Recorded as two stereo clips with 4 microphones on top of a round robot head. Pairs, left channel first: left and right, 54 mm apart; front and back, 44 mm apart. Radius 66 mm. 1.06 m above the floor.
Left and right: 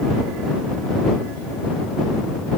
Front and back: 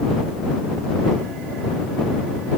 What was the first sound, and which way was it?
Only background noise.